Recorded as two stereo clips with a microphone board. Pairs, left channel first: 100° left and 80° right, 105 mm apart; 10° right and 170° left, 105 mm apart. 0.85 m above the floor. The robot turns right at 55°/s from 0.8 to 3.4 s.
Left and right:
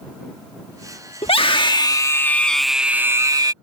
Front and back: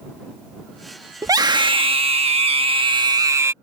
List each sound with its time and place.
1.2 s a scream: 110° left; by 3.5 s 130° right